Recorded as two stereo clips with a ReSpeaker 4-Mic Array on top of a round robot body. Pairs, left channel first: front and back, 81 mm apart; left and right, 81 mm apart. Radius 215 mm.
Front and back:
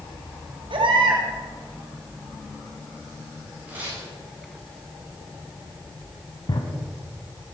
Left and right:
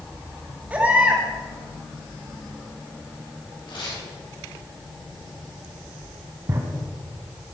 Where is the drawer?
35° right, 1.6 m.